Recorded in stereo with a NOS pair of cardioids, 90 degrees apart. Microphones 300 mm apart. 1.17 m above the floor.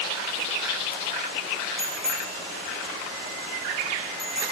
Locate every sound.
1.8 s a bicycle bell: straight ahead, 7.5 m